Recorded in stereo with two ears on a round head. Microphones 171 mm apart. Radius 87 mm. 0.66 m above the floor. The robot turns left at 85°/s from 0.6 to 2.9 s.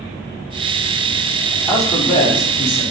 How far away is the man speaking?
About 4.5 m.